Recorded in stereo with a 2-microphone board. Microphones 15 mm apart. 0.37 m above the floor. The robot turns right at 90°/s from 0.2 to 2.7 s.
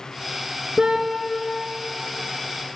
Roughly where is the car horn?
Right.